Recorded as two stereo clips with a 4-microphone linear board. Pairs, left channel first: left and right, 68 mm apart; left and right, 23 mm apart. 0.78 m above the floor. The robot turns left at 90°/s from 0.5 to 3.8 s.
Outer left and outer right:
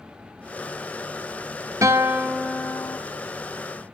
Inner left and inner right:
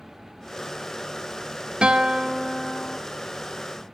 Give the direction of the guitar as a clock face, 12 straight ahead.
4 o'clock.